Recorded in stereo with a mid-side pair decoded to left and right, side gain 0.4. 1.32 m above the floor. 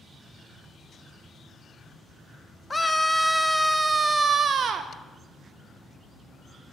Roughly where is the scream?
Ahead.